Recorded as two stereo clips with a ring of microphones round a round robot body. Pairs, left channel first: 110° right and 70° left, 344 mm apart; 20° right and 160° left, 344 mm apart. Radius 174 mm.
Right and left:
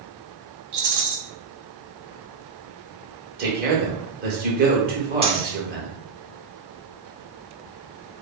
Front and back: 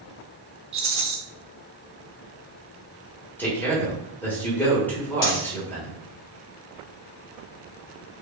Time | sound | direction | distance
0.7 | a rattle | 90° left | 1.1 m
3.4 | a man speaking | 55° left | 1.2 m
5.2 | a dropped coin | 5° right | 1.5 m